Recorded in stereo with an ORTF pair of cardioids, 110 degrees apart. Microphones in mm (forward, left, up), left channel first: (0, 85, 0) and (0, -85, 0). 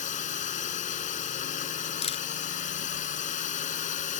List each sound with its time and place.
0.0 s a drone: 45° left
2.0 s a camera shutter: 35° left